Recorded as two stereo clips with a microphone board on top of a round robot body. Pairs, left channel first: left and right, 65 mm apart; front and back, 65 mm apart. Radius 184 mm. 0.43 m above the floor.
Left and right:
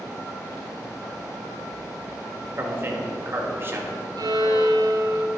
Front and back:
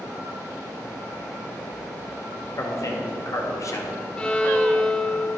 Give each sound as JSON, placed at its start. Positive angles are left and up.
{"t": 2.6, "sound": "a man speaking", "azimuth_deg": -35, "distance_m": 1.8}
{"t": 4.2, "sound": "a violin", "azimuth_deg": -75, "distance_m": 0.9}